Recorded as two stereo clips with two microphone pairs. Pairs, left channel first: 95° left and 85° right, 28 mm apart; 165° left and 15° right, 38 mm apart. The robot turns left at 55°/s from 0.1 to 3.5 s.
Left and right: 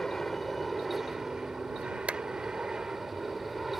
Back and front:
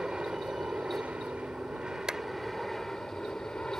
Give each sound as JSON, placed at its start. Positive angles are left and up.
{"t": 0.0, "sound": "an aircraft", "azimuth_deg": 30}
{"t": 2.1, "sound": "a clap", "azimuth_deg": -85}